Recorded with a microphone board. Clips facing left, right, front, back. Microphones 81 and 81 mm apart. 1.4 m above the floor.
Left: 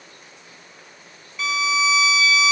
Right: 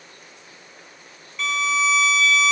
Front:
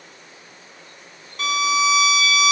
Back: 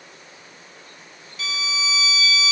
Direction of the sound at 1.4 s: 5° left.